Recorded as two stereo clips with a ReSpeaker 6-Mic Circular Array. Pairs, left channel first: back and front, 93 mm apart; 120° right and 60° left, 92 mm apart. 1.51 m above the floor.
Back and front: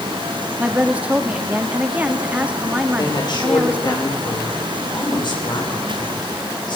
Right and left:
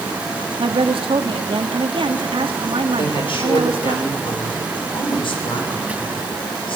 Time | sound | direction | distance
0.6 | a woman speaking | 75° left | 2.5 m
3.0 | a woman speaking | 145° right | 6.5 m